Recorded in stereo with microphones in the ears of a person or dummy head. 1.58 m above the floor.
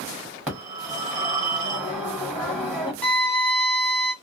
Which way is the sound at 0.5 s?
5° right (ahead or behind).